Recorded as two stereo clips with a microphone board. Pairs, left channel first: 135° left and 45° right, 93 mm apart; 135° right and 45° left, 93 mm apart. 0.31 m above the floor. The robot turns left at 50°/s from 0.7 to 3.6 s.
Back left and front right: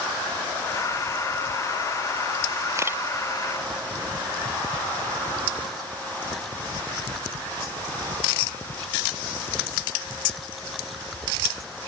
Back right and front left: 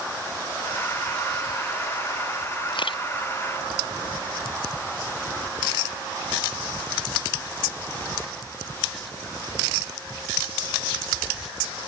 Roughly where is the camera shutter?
Right.